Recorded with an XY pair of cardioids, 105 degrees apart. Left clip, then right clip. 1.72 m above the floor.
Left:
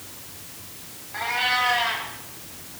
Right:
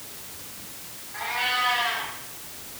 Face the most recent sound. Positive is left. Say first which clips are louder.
# left 3 dB
turn(degrees=45)